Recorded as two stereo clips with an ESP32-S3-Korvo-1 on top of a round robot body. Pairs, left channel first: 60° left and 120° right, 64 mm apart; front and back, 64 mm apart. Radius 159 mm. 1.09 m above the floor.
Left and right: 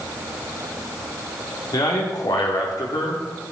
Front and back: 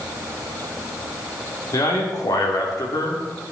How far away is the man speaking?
About 2.5 m.